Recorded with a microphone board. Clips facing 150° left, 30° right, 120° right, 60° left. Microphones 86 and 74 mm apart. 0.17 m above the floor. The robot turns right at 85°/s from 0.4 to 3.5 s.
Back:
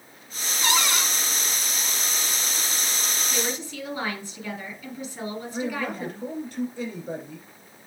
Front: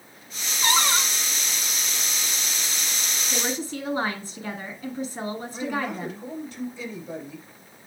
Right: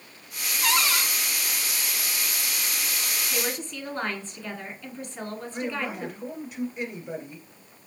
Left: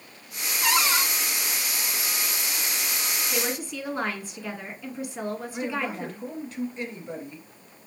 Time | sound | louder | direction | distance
0.6 | a cupboard door | front 2 dB, left 1 dB | 20° right | 1.0 m
3.3 | a woman speaking | front 4 dB, left 2 dB | 30° right | 1.4 m
5.5 | a man speaking | even, right 2 dB | 165° left | 2 m